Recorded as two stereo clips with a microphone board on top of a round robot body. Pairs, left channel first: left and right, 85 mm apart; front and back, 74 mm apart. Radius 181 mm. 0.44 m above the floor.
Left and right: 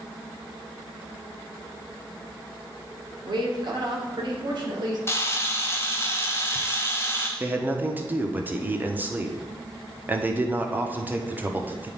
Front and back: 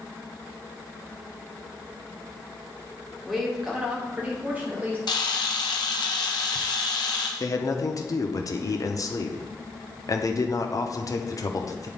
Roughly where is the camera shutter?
Ahead left.